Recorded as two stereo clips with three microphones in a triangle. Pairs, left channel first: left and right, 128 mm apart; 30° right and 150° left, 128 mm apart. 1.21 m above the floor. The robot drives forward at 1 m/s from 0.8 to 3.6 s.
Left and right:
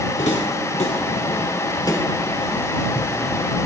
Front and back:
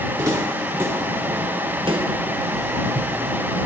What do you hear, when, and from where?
0.2 s footsteps: 85° left, 3 m; by 3.7 s 150° right, 3 m